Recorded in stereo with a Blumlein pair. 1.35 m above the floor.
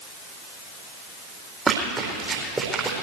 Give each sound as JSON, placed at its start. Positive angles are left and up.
{"t": 1.7, "sound": "running footsteps", "azimuth_deg": -15, "distance_m": 4.0}